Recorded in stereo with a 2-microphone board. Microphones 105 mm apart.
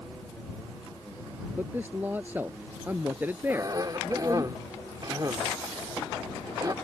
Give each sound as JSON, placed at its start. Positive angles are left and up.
{"t": 1.6, "sound": "a man speaking", "side_deg": -15}
{"t": 3.5, "sound": "a cough", "side_deg": -35}